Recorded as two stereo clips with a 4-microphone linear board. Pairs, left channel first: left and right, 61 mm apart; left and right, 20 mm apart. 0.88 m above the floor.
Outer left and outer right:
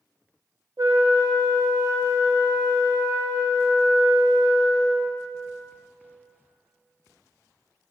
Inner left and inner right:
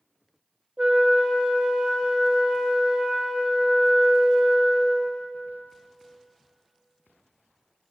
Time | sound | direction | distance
0.8 | a flute | 65° right (ahead or behind) | 1.1 m